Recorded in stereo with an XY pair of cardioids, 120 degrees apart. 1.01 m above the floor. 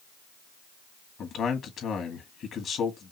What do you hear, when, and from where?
1.2 s a man speaking: 55° left, 2 m